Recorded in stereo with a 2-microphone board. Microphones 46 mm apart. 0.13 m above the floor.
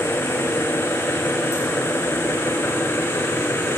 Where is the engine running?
85° left, 5 m.